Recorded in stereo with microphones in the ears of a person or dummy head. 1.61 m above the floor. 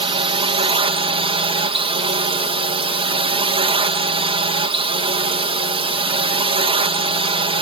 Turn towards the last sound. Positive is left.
turn(degrees=-25)  # may be behind; listen again after turning